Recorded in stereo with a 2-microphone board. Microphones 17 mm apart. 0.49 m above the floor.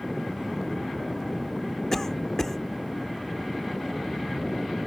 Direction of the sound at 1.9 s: 30° left (ahead or behind).